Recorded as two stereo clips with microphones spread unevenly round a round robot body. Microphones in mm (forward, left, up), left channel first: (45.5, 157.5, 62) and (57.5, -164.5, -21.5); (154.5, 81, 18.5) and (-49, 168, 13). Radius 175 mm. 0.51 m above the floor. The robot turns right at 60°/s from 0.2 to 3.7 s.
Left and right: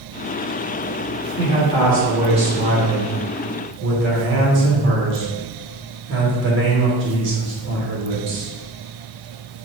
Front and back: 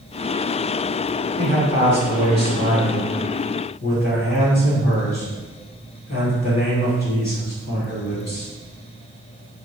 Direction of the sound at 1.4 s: 155° left.